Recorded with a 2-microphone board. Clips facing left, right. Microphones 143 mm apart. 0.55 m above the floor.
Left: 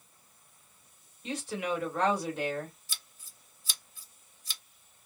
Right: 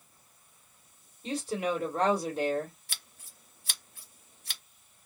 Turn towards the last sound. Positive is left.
turn(degrees=-65)  # may be behind; listen again after turning